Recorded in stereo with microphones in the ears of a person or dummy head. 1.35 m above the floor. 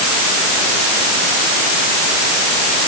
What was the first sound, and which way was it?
Only background noise.